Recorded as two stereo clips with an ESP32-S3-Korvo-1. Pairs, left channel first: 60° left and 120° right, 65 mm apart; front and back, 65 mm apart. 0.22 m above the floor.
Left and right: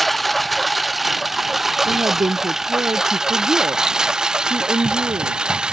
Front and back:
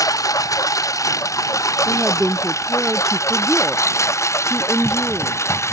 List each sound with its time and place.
0.0 s a lawn mower: 30° right; by 5.7 s 45° right
1.9 s a woman speaking: 90° right